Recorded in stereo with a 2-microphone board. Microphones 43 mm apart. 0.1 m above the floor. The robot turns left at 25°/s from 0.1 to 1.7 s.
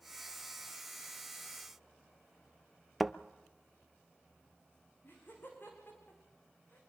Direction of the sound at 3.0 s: Centre (ahead or behind).